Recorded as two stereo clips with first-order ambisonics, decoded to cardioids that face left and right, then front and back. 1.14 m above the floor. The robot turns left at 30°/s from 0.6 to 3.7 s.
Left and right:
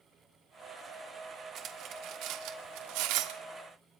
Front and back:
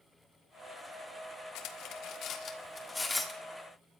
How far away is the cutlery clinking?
About 1.5 m.